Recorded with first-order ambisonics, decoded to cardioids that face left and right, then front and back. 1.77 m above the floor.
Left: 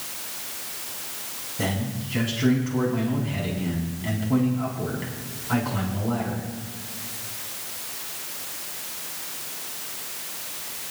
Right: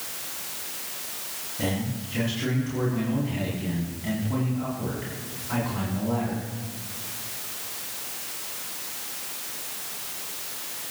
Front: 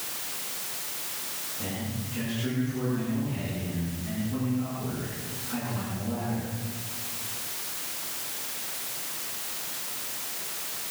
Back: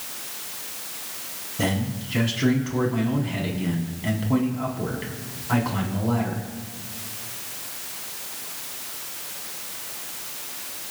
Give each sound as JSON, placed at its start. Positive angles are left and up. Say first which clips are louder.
{"t": 1.6, "sound": "a man speaking", "louder": "left 1 dB, back 8 dB", "azimuth_deg": 170, "distance_m": 5.0}